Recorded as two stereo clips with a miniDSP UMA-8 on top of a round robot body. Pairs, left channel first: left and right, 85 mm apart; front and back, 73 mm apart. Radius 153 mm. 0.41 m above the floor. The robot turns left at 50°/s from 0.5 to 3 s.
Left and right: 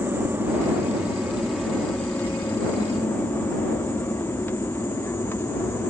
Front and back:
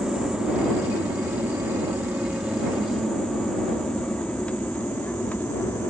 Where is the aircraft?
105° right; by 5.9 s 50° left.